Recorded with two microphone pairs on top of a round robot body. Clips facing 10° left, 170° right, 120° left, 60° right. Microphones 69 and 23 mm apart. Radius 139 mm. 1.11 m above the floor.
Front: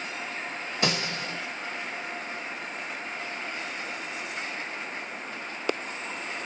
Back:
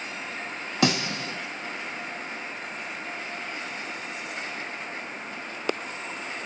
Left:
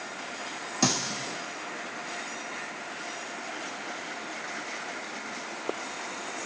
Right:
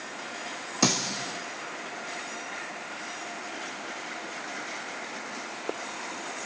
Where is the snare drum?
155° right, 0.9 m.